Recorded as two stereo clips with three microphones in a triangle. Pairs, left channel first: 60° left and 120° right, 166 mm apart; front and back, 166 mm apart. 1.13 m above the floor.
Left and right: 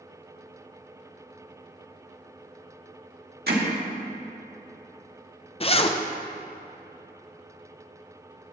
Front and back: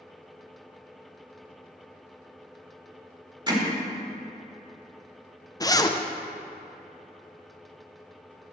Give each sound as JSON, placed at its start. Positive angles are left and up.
{"t": 3.5, "sound": "hammering", "azimuth_deg": -120, "distance_m": 1.6}
{"t": 5.6, "sound": "a zipper", "azimuth_deg": 55, "distance_m": 0.6}